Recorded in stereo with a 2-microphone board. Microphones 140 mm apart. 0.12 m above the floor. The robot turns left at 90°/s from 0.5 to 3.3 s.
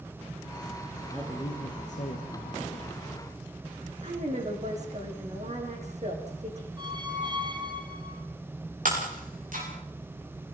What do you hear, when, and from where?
1.1 s a man speaking: straight behind, 3.5 m; by 2.9 s 15° left, 3.5 m
4.0 s a woman speaking: 55° right (ahead or behind), 7.5 m
6.8 s a squeak: 30° right (ahead or behind), 2.5 m
8.8 s breaking glass: 70° right (ahead or behind), 9.5 m